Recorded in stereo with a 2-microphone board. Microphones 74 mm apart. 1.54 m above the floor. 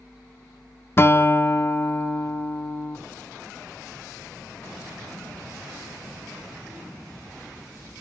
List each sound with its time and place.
1.0 s a guitar: 35° left (ahead or behind), 0.7 m